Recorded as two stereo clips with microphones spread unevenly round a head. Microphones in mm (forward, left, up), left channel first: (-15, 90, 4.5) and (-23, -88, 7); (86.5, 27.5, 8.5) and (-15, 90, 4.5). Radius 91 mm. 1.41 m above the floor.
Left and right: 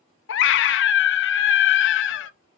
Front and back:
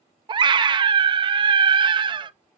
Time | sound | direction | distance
0.3 | a scream | 100° left | 0.6 m